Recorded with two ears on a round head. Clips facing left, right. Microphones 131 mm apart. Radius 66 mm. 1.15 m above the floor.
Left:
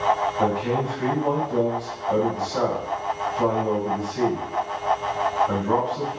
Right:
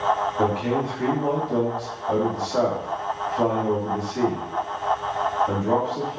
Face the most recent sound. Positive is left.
turn(degrees=-65)  # may be behind; listen again after turning